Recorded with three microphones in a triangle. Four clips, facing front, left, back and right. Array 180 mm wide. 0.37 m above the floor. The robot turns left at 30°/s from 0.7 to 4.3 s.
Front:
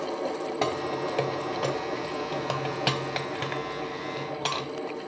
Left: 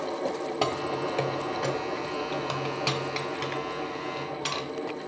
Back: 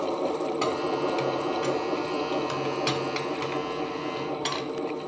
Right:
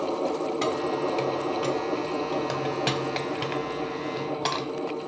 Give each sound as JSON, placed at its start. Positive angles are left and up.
{"t": 0.6, "sound": "keys jangling", "azimuth_deg": 40, "distance_m": 1.3}